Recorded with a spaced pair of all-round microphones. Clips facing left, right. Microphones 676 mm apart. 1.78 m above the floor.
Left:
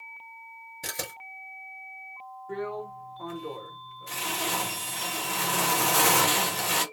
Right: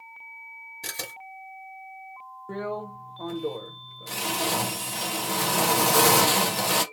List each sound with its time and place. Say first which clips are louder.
0.8 s a camera shutter: left 2 dB; 15° left (ahead or behind), 1.4 m
2.5 s a drill: right 1 dB; 65° right (ahead or behind), 0.8 m